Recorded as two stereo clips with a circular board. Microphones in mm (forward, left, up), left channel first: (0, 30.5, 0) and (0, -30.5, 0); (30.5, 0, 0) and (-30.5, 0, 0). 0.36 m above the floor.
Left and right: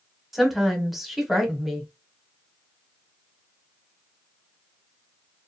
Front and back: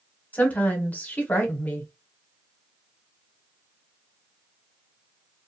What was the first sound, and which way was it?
A woman speaking, 5° right.